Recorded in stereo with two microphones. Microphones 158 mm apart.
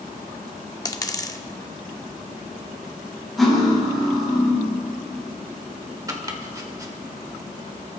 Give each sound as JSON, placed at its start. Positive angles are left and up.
{"t": 0.8, "sound": "a dropped coin", "side_deg": 25, "distance_m": 0.8}
{"t": 3.4, "sound": "cutlery clinking", "side_deg": 0, "distance_m": 6.5}
{"t": 6.1, "sound": "chopping", "side_deg": -25, "distance_m": 1.4}